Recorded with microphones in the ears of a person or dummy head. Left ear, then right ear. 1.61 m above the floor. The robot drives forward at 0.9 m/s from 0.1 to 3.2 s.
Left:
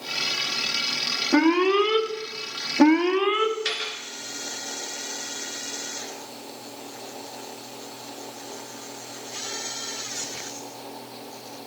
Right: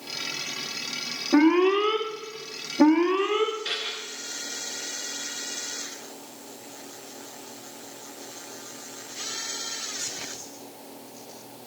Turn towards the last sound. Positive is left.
turn(degrees=35)  # may be behind; listen again after turning